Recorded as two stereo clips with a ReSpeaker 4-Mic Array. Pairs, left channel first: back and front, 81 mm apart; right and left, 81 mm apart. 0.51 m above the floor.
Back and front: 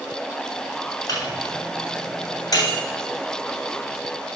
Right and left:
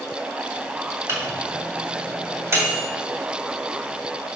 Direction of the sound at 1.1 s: 145° left.